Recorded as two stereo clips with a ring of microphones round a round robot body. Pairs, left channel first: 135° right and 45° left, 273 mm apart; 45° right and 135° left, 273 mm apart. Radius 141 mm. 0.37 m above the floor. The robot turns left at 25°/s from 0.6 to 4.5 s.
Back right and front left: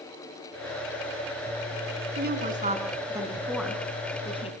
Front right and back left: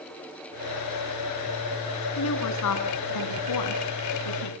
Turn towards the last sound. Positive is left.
turn(degrees=-65)